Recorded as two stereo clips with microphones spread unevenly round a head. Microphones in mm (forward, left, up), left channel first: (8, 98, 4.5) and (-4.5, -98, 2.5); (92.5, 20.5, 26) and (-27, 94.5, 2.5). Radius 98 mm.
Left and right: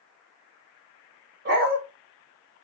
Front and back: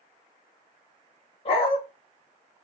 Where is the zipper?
I don't hear a zipper.